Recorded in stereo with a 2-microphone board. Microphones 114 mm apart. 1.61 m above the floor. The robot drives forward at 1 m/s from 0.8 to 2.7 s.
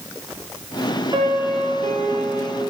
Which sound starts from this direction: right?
A piano, at 1.1 s.